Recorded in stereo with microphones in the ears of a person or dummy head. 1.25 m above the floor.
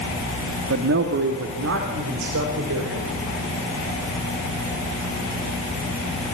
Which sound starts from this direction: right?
A man speaking, at 0.7 s.